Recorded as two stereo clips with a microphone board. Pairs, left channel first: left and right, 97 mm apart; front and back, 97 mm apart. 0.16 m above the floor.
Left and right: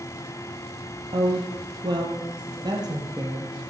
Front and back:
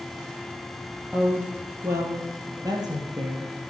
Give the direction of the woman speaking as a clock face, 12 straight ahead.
4 o'clock.